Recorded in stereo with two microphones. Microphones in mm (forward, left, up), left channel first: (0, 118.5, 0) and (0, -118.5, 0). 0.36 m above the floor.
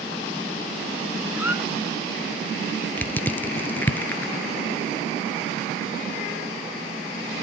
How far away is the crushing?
About 0.9 m.